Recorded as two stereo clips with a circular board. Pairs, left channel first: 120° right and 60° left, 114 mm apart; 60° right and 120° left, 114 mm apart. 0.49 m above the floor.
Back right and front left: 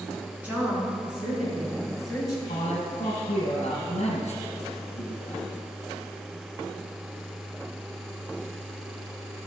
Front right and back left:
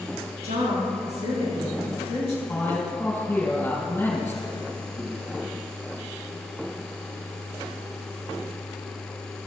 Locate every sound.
0.4 s a woman speaking: 135° left, 5.5 m; by 2.4 s 150° left, 6 m
2.5 s a man speaking: 130° right, 3 m